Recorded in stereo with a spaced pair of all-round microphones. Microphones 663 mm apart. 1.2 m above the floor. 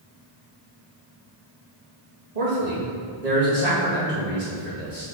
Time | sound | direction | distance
2.4 | a man speaking | 70° right (ahead or behind) | 2 m